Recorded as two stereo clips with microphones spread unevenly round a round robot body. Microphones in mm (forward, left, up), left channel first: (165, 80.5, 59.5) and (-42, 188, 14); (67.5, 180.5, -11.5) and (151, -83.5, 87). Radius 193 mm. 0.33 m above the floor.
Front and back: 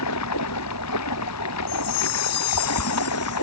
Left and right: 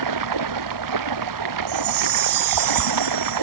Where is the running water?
75° right.